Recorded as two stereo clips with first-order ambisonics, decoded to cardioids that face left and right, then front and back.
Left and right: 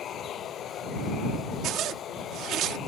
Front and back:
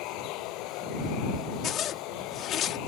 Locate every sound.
0.0 s running water: 30° left
1.6 s a zipper: 50° right